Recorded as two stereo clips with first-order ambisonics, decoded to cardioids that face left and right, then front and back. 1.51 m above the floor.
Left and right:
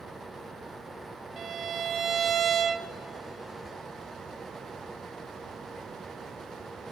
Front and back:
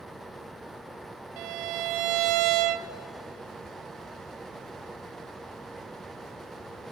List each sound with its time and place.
1.4 s a violin: 150° right, 0.6 m